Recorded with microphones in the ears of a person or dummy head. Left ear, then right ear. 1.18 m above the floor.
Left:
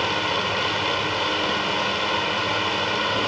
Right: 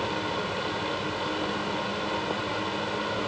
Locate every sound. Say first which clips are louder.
0.0 s a fan: left 7 dB; 50° left (ahead or behind), 1.0 m